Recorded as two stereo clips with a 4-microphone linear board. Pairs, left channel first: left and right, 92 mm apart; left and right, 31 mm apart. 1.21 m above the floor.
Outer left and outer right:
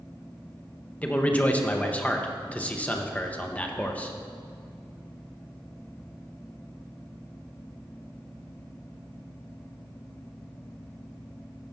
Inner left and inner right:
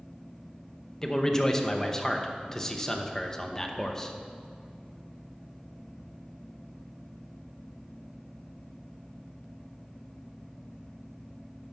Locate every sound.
1.0 s a man speaking: 15° left (ahead or behind), 0.8 m